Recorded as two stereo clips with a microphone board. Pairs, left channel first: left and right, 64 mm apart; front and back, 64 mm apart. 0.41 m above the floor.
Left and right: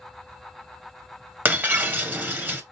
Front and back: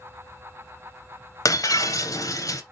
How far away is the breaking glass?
About 0.8 m.